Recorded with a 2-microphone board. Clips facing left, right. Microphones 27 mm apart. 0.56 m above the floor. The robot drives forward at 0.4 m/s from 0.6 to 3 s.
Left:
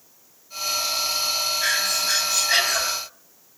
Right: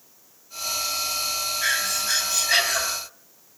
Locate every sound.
1.6 s breathing: centre (ahead or behind), 3.5 m